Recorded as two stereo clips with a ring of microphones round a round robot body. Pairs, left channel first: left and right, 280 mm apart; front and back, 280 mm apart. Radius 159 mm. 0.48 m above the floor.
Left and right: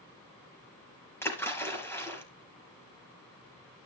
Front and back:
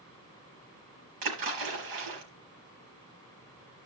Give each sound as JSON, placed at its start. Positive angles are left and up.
{"t": 1.2, "sound": "a splash", "azimuth_deg": 170, "distance_m": 4.5}